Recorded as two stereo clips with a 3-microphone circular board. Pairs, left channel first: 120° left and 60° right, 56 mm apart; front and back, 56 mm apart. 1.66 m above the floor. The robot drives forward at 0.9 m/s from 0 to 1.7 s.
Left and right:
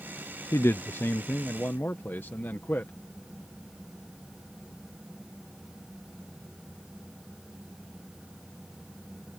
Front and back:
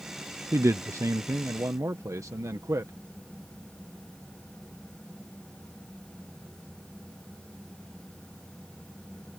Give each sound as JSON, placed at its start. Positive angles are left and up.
{"t": 0.5, "sound": "a man speaking", "azimuth_deg": 150}